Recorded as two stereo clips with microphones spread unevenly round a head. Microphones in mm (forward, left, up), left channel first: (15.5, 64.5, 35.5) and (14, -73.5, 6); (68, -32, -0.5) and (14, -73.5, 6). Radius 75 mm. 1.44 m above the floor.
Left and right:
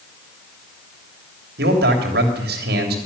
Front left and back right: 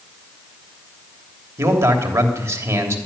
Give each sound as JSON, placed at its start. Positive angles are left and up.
{"t": 1.6, "sound": "a man speaking", "azimuth_deg": -100, "distance_m": 3.0}